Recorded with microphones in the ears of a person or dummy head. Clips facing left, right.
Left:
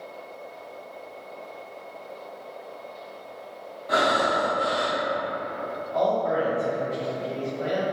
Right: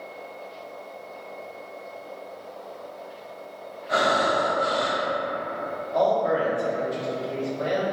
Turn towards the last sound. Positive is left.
turn(degrees=-15)  # may be behind; listen again after turning